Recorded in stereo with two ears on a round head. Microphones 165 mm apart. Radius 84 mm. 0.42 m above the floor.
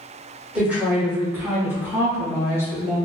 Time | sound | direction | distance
0.6 | a woman speaking | 5° right (ahead or behind) | 1.2 m